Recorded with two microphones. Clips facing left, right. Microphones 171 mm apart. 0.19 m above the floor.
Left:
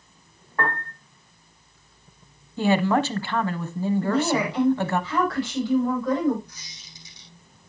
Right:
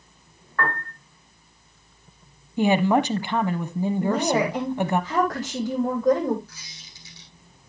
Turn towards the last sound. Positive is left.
turn(degrees=20)  # may be behind; listen again after turning